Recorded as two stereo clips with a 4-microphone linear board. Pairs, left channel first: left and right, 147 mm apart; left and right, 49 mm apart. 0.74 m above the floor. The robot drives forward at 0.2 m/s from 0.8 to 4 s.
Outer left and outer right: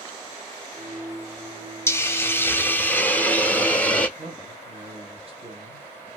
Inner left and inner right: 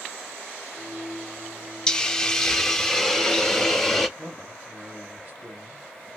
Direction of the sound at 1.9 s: 15° left (ahead or behind).